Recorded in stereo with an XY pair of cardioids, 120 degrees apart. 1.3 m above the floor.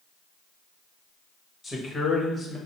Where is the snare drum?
No snare drum in this recording.